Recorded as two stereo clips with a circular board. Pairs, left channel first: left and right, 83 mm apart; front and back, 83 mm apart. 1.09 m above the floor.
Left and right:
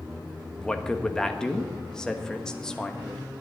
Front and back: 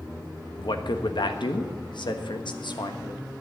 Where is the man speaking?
10° left, 1.3 m.